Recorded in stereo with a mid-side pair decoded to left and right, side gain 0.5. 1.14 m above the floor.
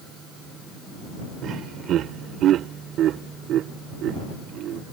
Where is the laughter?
65° right.